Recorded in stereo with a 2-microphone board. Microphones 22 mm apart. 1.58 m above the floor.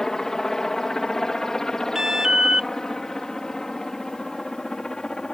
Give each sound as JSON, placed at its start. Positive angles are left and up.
{"t": 0.0, "sound": "a helicopter", "side_deg": 25}
{"t": 1.9, "sound": "an alarm", "side_deg": -35}